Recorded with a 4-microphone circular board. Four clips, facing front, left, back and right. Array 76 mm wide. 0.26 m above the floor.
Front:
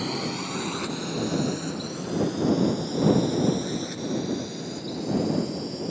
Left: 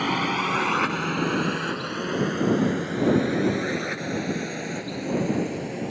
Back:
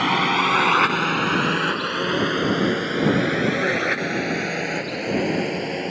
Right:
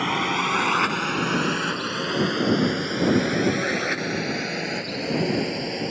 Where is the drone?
175° right; by 5.9 s 165° right.